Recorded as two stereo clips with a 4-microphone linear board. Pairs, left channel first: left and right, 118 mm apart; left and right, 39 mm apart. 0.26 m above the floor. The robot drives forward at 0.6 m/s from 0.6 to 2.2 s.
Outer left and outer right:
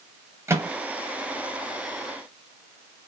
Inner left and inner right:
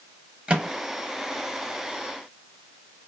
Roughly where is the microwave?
Right.